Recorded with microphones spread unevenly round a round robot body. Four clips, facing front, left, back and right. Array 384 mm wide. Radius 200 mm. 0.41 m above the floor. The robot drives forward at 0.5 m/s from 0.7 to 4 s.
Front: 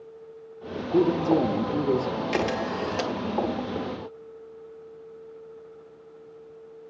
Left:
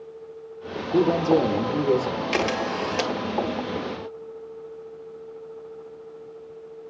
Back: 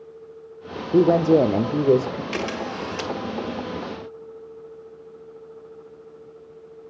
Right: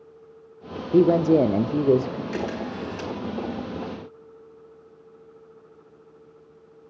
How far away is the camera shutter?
About 2.5 m.